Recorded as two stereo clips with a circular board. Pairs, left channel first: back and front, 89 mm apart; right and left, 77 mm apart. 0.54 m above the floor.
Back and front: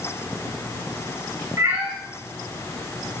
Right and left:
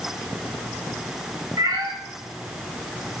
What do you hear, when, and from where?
1.6 s a cat meowing: 55° left, 5 m